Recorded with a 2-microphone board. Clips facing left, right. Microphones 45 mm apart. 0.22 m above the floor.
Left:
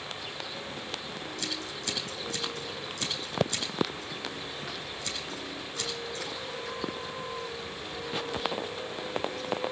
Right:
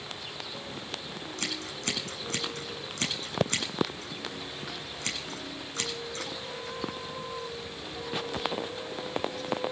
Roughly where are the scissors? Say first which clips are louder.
Right 3 dB; right.